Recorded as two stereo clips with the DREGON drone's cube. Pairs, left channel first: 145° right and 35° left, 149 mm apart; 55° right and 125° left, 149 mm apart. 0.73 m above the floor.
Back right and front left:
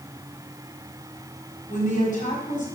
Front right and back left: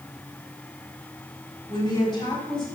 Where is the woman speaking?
115° right, 5 m.